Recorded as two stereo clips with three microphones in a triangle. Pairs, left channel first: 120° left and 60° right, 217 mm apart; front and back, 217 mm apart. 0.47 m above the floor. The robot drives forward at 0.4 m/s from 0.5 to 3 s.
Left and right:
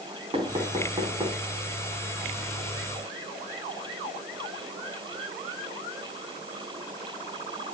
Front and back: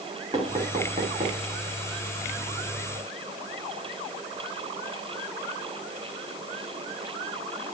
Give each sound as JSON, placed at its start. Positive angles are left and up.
{"t": 0.3, "sound": "knocking", "azimuth_deg": -120, "distance_m": 3.0}